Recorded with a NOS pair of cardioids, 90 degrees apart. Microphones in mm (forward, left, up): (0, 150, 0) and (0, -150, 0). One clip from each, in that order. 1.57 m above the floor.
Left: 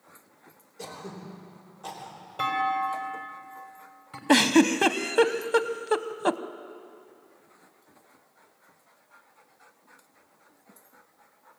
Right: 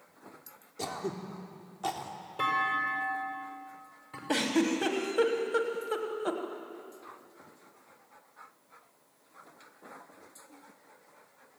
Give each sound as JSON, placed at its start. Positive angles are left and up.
{"t": 0.8, "sound": "throat clearing", "azimuth_deg": -55, "distance_m": 3.5}
{"t": 2.4, "sound": "a clunk", "azimuth_deg": 15, "distance_m": 5.5}
{"t": 4.3, "sound": "a giggle", "azimuth_deg": 55, "distance_m": 1.2}